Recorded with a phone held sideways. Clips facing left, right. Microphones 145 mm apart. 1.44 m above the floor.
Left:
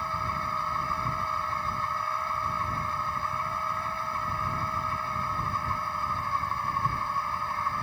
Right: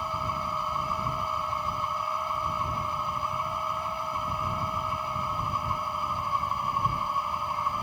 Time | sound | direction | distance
0.0 | a machine running | 15° right (ahead or behind) | ?